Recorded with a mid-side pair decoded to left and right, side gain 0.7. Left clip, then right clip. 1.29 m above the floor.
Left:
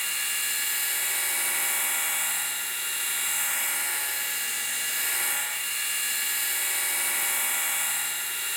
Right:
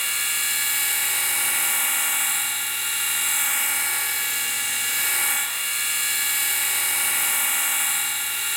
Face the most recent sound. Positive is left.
turn(degrees=-20)